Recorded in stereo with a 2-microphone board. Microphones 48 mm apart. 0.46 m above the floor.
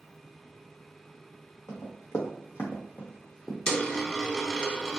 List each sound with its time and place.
1.7 s running footsteps: 70° left (ahead or behind), 1.5 m; by 3.6 s 5° left (ahead or behind), 1.2 m
3.7 s a dropped coin: 20° left (ahead or behind), 0.6 m